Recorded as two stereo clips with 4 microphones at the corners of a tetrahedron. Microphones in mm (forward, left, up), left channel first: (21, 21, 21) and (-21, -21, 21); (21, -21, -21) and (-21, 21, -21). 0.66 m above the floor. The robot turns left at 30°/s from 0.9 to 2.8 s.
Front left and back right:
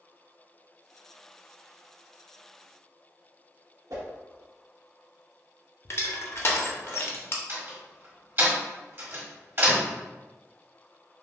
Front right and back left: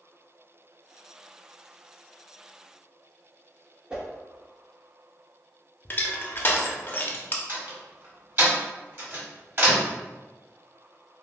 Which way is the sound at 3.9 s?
150° right.